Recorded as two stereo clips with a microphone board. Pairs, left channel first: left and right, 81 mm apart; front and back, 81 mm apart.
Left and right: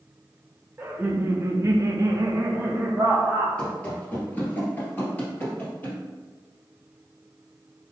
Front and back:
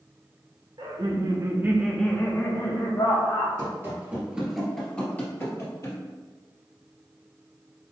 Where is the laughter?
155° right, 1.1 m; by 3.5 s 15° right, 1.4 m.